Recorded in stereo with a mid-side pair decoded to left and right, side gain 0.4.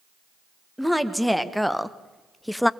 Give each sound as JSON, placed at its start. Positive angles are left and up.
{"t": 0.8, "sound": "a woman speaking", "azimuth_deg": 0, "distance_m": 1.9}